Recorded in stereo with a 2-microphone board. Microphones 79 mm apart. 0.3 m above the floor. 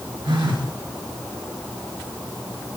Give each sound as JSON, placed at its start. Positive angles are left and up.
{"t": 0.2, "sound": "a phone buzzing", "side_deg": -75, "distance_m": 5.0}